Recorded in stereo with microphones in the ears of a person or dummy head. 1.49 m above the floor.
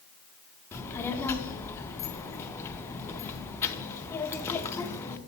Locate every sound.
0.7 s a child speaking: 15° left (ahead or behind), 0.6 m